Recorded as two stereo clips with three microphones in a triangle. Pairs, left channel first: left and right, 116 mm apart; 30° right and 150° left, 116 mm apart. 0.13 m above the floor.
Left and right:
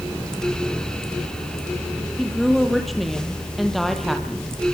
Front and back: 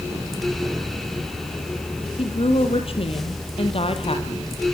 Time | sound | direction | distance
2.2 | a woman speaking | straight ahead | 3.5 m